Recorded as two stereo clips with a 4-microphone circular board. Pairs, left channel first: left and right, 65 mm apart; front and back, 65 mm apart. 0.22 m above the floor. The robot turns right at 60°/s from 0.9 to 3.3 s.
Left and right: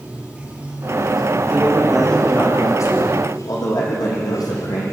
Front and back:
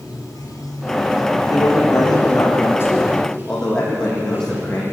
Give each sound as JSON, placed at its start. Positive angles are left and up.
{"t": 0.0, "sound": "running water", "azimuth_deg": -20, "distance_m": 4.5}
{"t": 1.5, "sound": "a man speaking", "azimuth_deg": -25, "distance_m": 9.0}